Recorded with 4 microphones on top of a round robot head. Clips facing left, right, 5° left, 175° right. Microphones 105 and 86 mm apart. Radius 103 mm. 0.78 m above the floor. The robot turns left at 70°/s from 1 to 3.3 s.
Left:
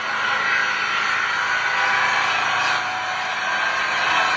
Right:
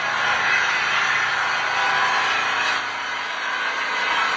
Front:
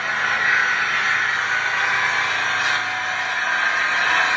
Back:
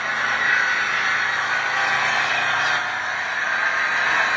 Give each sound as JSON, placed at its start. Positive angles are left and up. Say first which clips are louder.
{"t": 0.0, "sound": "an engine running", "louder": "right 1 dB, front 1 dB", "azimuth_deg": -95, "distance_m": 1.2}